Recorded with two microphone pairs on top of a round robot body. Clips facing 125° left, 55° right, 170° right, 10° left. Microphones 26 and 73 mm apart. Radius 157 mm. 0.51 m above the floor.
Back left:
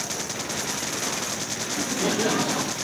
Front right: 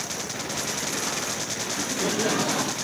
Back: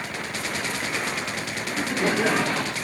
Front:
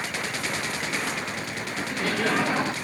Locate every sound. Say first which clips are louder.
1.7 s laughter: back left 2 dB, back 5 dB; 165° left, 1.1 m; by 2.7 s 30° left, 1.0 m